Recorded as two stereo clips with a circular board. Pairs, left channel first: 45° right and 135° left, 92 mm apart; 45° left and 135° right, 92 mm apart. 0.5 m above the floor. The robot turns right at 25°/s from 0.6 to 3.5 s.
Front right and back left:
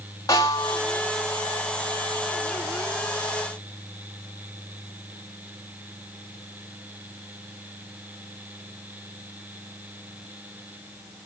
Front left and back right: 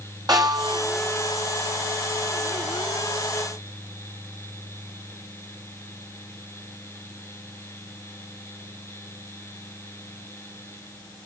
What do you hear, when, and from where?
0.3 s a snare drum: 95° right, 4.5 m; by 0.8 s 90° right, 4.5 m